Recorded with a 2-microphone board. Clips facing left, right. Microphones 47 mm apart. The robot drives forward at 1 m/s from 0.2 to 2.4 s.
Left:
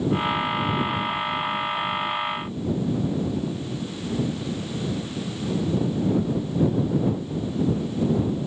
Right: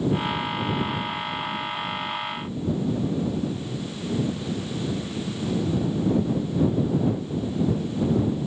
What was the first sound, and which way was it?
Only background noise.